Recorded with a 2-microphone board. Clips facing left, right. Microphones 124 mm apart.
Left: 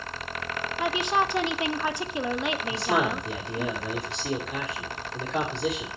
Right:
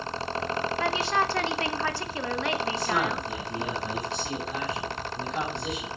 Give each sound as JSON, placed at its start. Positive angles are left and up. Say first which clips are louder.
{"t": 0.8, "sound": "a woman speaking", "louder": "left 3 dB", "side_deg": 20, "distance_m": 0.9}
{"t": 2.7, "sound": "a man speaking", "louder": "left 2 dB", "side_deg": 75, "distance_m": 3.5}